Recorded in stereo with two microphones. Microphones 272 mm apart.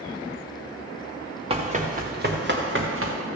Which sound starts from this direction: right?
Running footsteps, at 1.5 s.